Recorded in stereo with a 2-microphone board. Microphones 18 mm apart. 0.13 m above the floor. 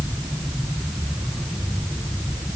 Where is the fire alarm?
No fire alarm in this recording.